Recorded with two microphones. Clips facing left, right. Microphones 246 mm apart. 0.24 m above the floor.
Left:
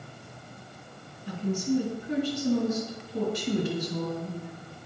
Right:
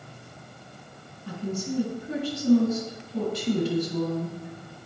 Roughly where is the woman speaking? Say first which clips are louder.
Left 3 dB; right.